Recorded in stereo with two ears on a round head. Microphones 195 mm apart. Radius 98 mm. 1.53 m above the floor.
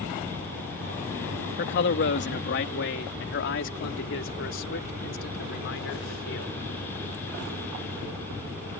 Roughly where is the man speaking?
Left.